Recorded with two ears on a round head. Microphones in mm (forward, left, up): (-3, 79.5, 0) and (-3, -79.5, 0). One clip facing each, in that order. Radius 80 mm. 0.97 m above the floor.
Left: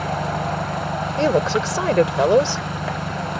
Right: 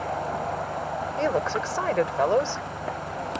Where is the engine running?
80° left.